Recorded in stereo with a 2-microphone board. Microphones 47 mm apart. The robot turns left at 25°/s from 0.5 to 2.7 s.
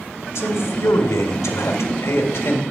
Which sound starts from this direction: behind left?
A man speaking, at 0.3 s.